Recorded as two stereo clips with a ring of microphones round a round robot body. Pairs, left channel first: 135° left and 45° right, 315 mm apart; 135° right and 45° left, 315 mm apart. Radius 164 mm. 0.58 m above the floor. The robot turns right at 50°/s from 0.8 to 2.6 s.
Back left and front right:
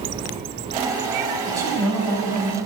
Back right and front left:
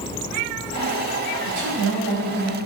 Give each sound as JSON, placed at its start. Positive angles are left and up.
{"t": 1.5, "sound": "a woman speaking", "azimuth_deg": 30, "distance_m": 1.3}